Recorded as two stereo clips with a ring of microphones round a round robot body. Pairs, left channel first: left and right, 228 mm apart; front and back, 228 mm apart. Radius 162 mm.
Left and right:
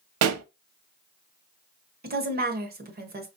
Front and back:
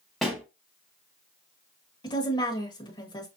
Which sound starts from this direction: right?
A pop, at 0.2 s.